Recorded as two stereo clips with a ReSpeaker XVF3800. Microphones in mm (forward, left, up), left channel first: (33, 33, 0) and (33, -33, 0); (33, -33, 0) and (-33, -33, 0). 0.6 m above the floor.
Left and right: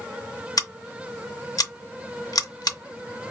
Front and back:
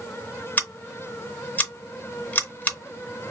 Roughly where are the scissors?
Ahead left.